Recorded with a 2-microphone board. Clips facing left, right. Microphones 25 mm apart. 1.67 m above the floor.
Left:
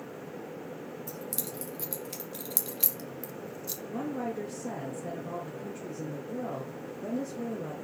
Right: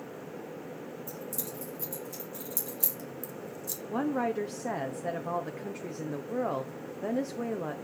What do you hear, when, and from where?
1.1 s keys jangling: 60° left (ahead or behind), 2.5 m; by 3.8 s 25° left (ahead or behind), 1.4 m
3.9 s a woman speaking: 85° right, 0.7 m